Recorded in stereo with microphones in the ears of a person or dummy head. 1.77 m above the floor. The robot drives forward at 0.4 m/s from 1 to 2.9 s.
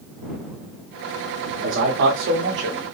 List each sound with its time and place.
1.5 s a man speaking: 60° right (ahead or behind), 0.9 m; by 2.9 s 45° right (ahead or behind), 1.1 m